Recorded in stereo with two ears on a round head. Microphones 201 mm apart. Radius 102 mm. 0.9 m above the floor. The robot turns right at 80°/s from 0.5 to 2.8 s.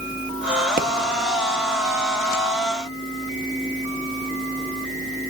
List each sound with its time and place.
0.8 s a pop: 40° right (ahead or behind), 1.1 m; by 0.9 s 50° right (ahead or behind), 1.1 m